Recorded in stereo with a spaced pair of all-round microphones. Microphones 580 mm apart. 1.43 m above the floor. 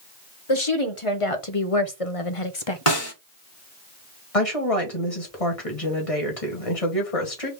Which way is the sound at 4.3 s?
70° left (ahead or behind).